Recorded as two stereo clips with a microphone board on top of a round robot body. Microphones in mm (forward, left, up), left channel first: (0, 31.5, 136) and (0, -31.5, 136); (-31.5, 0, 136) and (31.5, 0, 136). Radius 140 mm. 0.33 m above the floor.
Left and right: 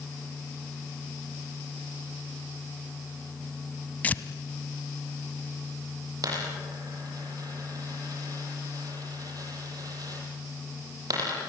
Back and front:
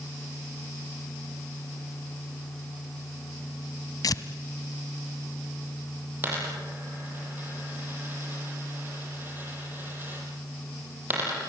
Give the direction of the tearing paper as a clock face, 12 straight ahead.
7 o'clock.